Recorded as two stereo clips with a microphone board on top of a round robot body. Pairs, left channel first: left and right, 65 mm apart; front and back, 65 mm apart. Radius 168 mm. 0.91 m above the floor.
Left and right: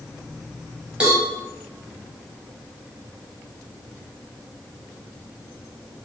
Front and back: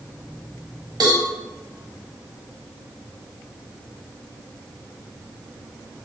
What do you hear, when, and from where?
1.0 s a cowbell: 165° right, 1.0 m